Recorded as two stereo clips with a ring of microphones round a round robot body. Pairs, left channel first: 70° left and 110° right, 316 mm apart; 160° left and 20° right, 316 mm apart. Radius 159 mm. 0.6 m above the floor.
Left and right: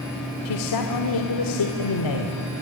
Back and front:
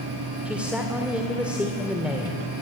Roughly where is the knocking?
No knocking in this recording.